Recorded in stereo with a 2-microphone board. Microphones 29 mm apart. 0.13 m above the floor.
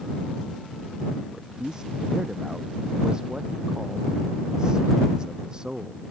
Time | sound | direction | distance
1.3 | a man speaking | 25° right (ahead or behind) | ?